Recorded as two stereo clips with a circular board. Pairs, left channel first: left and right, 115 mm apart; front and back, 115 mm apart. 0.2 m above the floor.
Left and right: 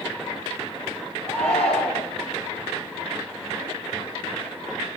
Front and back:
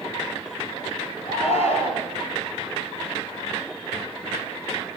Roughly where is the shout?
Ahead.